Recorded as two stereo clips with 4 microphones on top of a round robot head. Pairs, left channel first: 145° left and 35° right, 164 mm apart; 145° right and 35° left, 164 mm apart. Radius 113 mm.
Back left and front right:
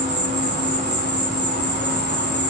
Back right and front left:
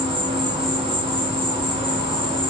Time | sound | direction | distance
0.0 | an insect | 20° right | 1.6 m